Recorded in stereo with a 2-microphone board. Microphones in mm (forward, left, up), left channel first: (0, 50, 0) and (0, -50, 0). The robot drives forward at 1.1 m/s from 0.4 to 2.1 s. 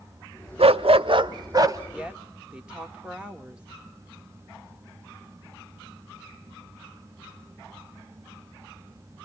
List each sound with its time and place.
0.6 s a dog barking: 75° right (ahead or behind), 0.9 m; by 1.8 s 35° right (ahead or behind), 1.5 m
1.9 s a woman speaking: 10° right (ahead or behind), 1.4 m